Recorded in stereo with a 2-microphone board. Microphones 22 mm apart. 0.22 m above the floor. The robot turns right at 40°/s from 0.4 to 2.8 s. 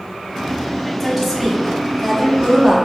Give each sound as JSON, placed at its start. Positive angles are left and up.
{"t": 1.0, "sound": "a woman speaking", "azimuth_deg": 175, "distance_m": 1.1}